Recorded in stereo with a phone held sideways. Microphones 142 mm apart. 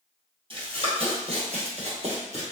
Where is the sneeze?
I don't hear a sneeze.